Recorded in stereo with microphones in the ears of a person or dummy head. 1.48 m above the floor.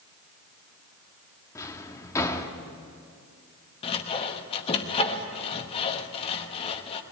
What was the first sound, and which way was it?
A drawer, 15° left (ahead or behind).